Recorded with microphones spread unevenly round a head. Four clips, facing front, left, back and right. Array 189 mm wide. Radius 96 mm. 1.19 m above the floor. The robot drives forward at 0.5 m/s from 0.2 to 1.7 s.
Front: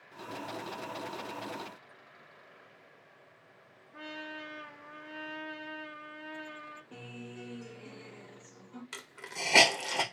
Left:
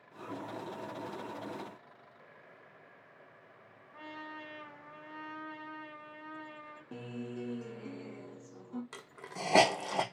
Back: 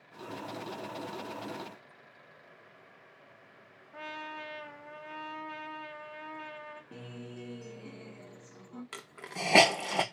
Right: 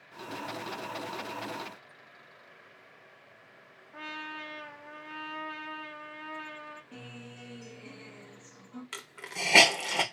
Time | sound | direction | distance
3.9 | a trumpet | 155° right | 1.3 m
6.9 | a guitar | 110° left | 0.9 m
8.9 | a hiss | 175° right | 0.6 m